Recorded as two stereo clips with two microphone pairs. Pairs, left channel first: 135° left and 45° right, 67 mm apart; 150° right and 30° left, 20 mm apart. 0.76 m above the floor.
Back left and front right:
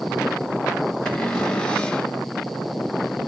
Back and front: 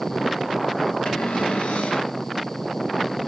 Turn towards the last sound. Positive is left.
turn(degrees=-150)